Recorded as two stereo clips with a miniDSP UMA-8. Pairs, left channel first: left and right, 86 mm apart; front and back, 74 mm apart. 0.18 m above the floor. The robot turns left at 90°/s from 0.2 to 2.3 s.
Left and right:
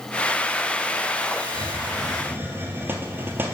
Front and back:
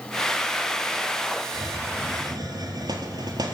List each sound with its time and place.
1.5 s a hiss: 85° right, 0.9 m; by 3.5 s 155° right, 0.9 m